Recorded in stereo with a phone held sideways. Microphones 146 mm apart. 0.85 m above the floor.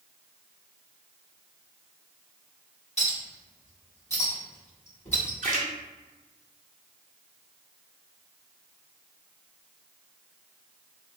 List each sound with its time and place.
3.0 s a clink: 45° left (ahead or behind), 1.7 m
5.4 s a splash: 60° right (ahead or behind), 0.7 m